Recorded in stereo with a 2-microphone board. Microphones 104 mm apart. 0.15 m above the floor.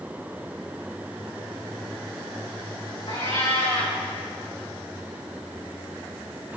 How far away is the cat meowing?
About 4.5 m.